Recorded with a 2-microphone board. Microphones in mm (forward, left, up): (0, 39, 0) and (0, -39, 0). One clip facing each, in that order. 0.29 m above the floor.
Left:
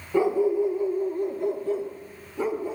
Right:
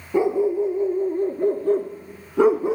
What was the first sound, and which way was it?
A dog barking, 20° right (ahead or behind).